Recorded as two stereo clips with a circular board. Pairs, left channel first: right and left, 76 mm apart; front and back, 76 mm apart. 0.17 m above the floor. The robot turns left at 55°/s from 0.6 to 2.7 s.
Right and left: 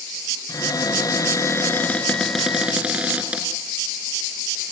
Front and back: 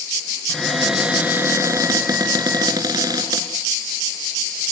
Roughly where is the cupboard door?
Right.